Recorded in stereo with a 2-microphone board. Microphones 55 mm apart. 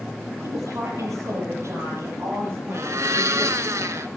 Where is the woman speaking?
70° right (ahead or behind), 7 m; by 3.7 s 30° right (ahead or behind), 7.5 m.